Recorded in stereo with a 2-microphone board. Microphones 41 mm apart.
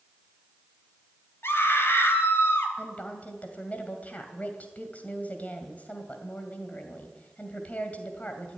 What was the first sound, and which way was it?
A scream, 70° left (ahead or behind).